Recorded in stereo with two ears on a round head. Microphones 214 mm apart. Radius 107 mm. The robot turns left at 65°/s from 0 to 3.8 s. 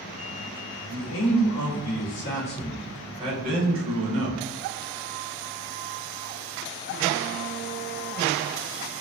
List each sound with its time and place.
0.9 s a man speaking: 130° left, 1.2 m; by 4.4 s 60° right, 1.2 m